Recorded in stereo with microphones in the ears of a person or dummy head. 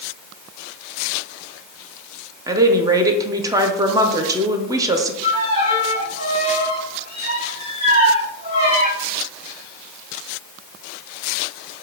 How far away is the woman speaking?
About 0.6 m.